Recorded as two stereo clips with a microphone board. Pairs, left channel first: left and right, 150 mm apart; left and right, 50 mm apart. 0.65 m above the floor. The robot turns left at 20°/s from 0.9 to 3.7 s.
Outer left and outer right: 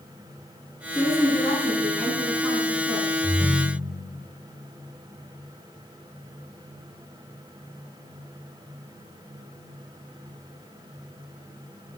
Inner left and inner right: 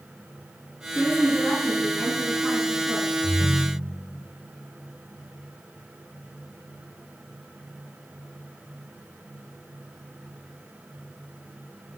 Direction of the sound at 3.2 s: 15° right (ahead or behind).